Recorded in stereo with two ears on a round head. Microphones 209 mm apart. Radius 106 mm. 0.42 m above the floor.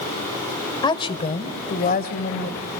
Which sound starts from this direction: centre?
A woman speaking, at 0.8 s.